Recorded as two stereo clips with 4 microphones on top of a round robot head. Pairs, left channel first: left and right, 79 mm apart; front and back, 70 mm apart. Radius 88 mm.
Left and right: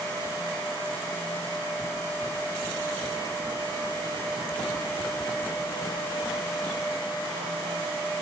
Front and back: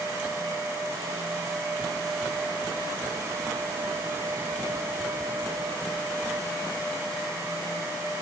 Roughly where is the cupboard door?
No cupboard door in this recording.